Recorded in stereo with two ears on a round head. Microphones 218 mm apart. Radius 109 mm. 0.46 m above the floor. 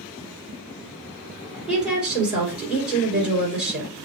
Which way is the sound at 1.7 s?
5° right (ahead or behind).